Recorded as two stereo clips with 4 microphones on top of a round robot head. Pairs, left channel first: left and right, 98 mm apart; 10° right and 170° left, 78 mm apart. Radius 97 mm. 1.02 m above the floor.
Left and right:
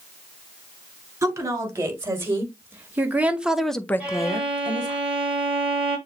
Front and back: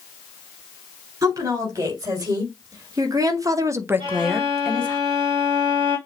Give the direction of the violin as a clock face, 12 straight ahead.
6 o'clock.